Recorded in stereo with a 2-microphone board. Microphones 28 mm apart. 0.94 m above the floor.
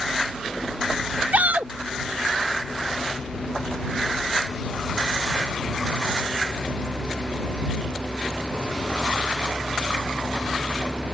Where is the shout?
80° right.